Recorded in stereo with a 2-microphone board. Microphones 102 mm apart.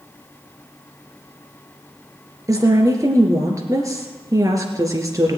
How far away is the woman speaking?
About 2.5 m.